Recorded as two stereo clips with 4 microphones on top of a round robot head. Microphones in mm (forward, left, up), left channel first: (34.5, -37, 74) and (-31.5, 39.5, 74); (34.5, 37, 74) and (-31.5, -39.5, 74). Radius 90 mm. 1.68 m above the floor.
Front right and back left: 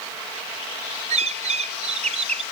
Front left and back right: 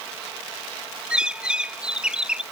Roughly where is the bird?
Behind left.